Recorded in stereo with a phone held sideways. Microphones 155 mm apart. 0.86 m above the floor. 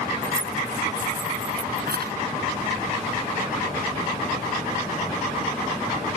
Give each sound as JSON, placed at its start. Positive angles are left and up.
{"t": 0.2, "sound": "keys jangling", "side_deg": -90}